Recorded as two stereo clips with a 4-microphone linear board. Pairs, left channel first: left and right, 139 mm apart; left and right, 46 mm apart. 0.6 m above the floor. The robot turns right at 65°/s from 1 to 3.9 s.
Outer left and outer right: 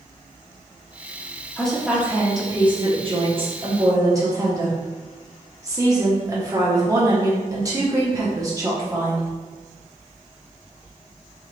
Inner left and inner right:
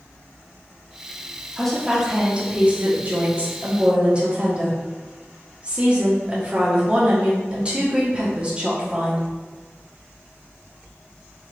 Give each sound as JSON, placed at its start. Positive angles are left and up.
{"t": 1.6, "sound": "a woman speaking", "azimuth_deg": 170, "distance_m": 1.0}